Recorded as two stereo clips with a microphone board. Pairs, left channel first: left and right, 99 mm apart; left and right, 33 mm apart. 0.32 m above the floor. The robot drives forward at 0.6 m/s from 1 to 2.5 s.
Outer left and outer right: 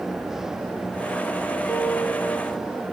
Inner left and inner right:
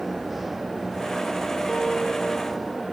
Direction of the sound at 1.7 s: 20° left (ahead or behind).